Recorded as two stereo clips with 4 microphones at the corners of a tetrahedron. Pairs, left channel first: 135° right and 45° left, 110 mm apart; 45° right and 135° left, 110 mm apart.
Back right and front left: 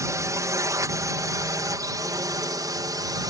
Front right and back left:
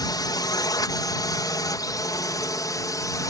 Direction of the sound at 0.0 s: 5° right.